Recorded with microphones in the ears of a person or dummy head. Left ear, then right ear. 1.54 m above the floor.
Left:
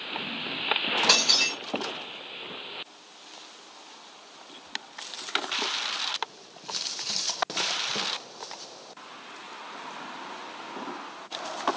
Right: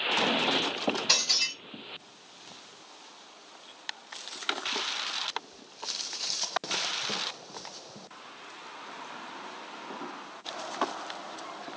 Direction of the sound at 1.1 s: 50° left (ahead or behind).